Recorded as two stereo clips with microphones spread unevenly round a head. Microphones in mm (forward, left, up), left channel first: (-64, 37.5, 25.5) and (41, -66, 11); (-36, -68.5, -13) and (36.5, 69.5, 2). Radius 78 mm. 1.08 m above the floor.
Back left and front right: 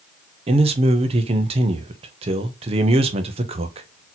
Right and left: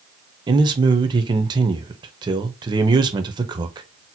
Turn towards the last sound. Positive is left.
turn(degrees=0)